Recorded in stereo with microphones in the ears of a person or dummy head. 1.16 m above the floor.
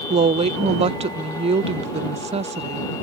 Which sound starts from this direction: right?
A woman speaking, at 0.1 s.